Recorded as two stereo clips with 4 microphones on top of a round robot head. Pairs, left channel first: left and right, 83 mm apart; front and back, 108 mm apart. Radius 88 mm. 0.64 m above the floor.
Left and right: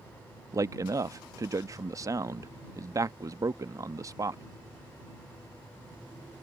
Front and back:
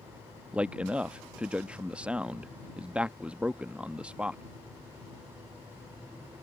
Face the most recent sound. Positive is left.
turn(degrees=-110)